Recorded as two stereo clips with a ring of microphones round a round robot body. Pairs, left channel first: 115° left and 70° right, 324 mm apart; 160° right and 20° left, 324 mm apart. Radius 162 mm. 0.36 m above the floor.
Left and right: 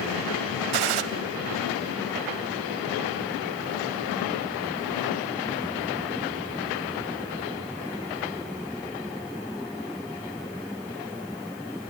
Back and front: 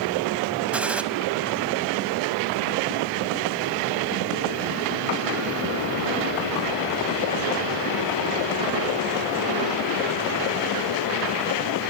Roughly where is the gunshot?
Ahead right.